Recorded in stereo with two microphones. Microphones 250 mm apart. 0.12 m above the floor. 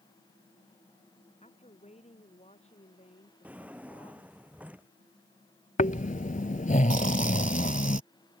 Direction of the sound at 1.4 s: 25° left (ahead or behind).